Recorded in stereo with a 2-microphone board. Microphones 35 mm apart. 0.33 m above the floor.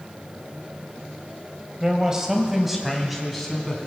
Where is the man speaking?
25° right (ahead or behind), 1.5 m; by 3.9 s 10° left (ahead or behind), 3 m.